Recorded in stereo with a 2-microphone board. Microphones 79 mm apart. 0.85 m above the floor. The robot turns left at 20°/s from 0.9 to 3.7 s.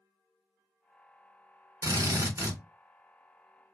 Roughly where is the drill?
Right.